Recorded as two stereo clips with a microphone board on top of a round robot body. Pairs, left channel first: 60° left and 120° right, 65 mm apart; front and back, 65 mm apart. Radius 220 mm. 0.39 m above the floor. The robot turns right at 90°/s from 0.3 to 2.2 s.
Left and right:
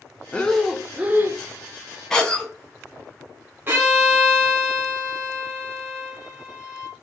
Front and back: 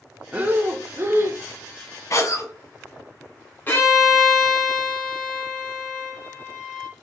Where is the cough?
20° right, 1.0 m; by 2.5 s 10° right, 1.0 m.